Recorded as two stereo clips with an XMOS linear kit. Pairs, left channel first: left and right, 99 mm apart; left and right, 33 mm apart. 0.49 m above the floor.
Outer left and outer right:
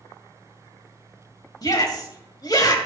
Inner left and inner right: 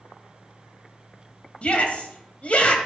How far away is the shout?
About 2.5 m.